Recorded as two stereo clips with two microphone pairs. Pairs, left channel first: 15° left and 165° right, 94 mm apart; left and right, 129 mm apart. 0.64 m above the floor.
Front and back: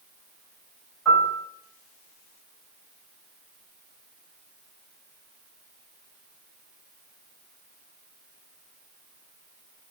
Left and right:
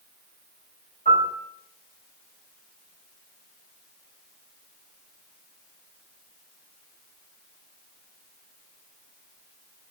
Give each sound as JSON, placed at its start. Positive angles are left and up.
{"t": 1.1, "sound": "a piano", "azimuth_deg": 105, "distance_m": 2.0}